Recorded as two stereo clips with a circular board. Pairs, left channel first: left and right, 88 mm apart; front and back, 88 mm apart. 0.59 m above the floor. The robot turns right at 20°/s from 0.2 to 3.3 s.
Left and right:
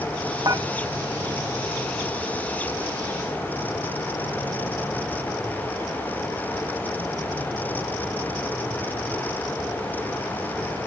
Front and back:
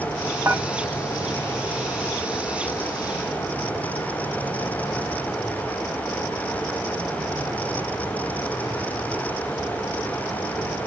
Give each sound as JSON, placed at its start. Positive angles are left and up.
{"t": 0.5, "sound": "dishes clattering", "azimuth_deg": -120, "distance_m": 1.2}